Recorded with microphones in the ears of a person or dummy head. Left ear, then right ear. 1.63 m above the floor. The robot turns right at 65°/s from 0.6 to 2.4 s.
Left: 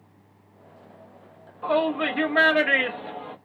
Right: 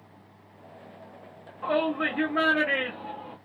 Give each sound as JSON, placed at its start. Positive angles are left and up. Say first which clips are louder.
{"t": 1.6, "sound": "a shout", "louder": "left 3 dB", "azimuth_deg": -10, "distance_m": 0.9}